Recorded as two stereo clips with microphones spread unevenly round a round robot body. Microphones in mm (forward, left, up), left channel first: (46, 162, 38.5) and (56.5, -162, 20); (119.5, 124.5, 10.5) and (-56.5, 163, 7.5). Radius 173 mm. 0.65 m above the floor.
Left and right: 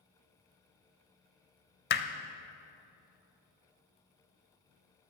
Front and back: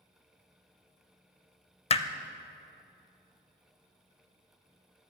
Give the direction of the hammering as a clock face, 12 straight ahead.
11 o'clock.